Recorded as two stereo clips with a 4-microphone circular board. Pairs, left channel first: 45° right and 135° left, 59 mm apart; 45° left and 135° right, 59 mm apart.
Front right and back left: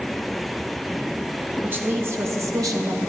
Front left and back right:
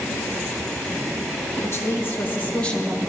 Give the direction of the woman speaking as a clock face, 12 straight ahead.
9 o'clock.